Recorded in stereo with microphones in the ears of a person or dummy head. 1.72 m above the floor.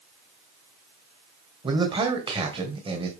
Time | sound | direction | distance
1.6 | a man speaking | 30° right (ahead or behind) | 1.3 m